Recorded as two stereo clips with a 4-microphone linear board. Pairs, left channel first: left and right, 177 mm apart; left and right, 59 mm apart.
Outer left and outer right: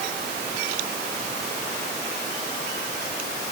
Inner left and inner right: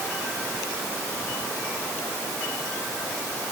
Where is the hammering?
No hammering in this recording.